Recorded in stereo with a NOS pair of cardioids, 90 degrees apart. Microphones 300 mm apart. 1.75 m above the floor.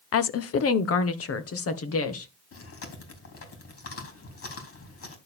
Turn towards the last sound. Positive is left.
turn(degrees=55)